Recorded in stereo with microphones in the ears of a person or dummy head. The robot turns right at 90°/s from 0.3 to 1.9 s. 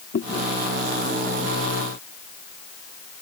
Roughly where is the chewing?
Left.